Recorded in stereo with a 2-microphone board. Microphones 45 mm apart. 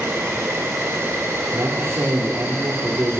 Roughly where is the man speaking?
Right.